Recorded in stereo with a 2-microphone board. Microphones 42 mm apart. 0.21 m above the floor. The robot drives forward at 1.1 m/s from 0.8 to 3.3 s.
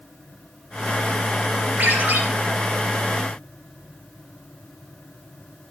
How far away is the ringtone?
About 2.5 m.